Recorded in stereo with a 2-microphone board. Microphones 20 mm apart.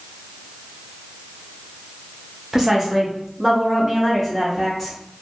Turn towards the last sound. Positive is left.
turn(degrees=-15)  # may be behind; listen again after turning